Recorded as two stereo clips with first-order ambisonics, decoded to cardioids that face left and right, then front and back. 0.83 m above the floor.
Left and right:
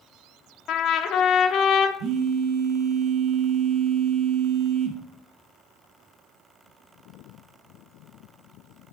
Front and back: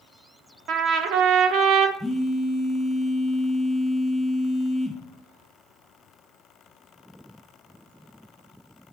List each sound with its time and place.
0.7 s a trumpet: 140° left, 0.9 m
2.0 s a phone buzzing: 90° right, 0.9 m